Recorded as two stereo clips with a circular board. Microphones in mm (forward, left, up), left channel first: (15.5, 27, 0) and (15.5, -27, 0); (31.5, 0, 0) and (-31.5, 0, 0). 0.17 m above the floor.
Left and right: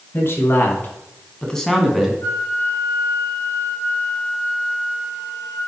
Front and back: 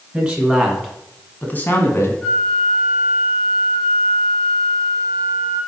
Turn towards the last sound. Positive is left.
turn(degrees=70)